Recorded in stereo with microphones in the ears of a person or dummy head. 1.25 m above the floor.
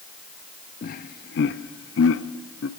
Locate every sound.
0.8 s laughter: 40° left (ahead or behind), 1.0 m; by 2.7 s 70° left (ahead or behind), 1.4 m